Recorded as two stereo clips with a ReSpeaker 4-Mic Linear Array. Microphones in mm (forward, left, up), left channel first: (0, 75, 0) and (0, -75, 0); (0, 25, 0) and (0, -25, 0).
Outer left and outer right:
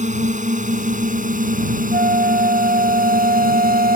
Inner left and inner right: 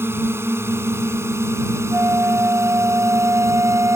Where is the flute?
65° right (ahead or behind).